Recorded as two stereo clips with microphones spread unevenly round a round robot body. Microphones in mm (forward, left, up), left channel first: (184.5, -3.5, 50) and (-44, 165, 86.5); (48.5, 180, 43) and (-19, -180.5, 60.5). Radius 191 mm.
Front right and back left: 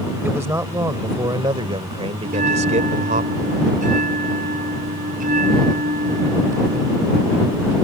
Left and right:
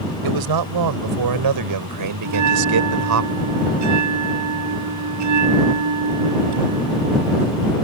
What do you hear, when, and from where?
0.2 s a man speaking: 130° right; by 3.2 s 150° right
2.2 s a bell: 145° right